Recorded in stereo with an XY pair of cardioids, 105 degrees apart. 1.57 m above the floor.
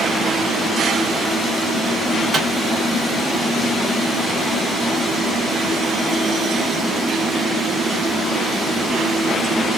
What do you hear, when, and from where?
2.3 s a microwave: 30° right, 1.9 m